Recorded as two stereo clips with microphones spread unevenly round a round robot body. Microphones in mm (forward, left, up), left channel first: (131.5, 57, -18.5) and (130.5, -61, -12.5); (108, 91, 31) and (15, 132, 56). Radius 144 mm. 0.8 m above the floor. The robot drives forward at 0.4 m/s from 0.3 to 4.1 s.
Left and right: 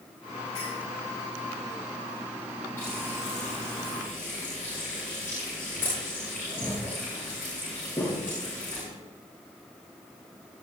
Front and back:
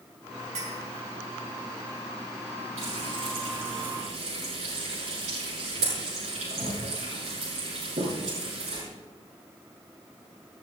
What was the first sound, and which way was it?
A clink, 165° left.